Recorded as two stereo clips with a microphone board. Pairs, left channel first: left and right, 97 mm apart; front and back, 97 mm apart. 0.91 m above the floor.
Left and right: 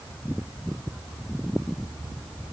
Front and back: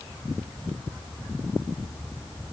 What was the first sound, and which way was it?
Only background noise.